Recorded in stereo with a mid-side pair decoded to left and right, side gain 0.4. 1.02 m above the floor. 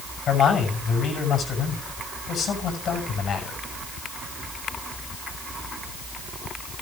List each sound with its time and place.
0.3 s a man speaking: 65° left, 7.5 m